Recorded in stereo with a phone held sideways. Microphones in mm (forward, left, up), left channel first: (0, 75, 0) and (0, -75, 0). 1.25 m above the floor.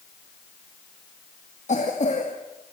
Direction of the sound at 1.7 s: 55° left (ahead or behind).